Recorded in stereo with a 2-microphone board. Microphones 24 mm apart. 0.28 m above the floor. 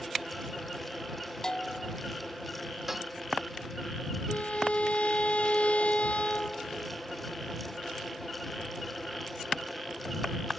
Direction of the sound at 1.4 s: 30° left (ahead or behind).